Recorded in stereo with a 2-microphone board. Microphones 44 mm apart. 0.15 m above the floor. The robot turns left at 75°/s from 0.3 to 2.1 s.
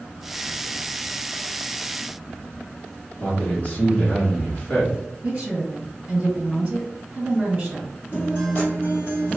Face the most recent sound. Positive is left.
turn(degrees=50)  # may be behind; listen again after turning